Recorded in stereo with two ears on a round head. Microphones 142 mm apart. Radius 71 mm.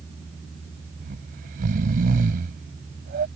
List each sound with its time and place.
1.0 s snoring: 60° right (ahead or behind)